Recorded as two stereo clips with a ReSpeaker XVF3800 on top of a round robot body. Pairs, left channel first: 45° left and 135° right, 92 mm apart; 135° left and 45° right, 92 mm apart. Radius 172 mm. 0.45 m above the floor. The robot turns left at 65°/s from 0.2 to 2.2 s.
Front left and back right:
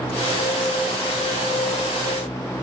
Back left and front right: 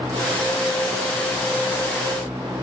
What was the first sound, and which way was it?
Only background noise.